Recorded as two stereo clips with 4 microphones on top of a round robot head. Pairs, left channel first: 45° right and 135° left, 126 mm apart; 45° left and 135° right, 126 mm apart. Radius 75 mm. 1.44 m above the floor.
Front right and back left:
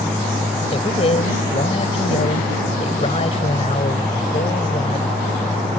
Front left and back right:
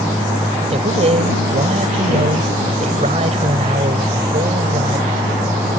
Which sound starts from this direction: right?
A man speaking, at 0.7 s.